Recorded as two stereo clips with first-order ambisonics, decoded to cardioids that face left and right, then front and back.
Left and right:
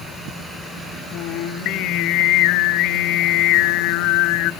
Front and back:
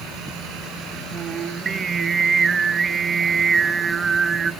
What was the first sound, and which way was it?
Singing, 110° left.